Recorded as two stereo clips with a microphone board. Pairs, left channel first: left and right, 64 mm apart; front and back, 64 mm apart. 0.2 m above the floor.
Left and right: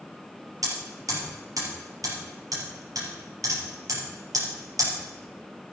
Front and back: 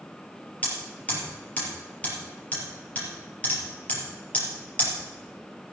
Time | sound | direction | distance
0.6 | hammering | 65° right | 4 m